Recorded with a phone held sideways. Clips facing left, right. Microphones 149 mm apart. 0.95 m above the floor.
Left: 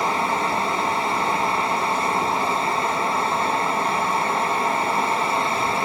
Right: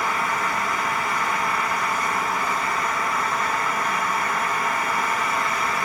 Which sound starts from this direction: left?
A fan, at 0.0 s.